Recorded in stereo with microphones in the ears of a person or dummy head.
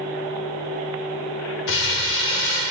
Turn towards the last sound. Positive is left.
turn(degrees=65)  # may be behind; listen again after turning